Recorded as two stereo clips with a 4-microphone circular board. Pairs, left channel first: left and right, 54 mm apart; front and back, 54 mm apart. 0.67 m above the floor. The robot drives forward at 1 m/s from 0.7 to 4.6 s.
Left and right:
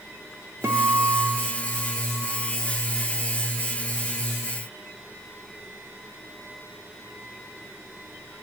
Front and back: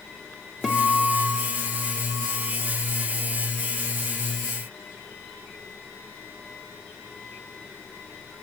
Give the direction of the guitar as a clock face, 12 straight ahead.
3 o'clock.